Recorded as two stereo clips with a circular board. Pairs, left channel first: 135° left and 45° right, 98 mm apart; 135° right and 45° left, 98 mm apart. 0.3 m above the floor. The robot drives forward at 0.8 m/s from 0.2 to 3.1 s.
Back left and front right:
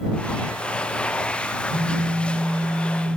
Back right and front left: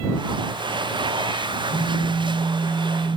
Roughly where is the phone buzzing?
Ahead right.